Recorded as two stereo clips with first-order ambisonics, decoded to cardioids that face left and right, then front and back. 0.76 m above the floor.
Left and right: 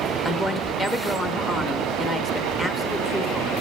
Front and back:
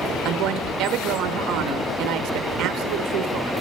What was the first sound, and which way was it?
A woman speaking, 170° left.